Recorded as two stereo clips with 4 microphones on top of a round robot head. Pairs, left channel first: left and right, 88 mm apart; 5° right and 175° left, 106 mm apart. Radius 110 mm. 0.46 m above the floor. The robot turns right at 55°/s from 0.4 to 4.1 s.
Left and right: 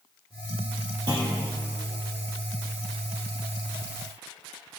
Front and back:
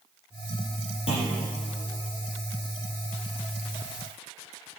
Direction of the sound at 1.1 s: 45° right.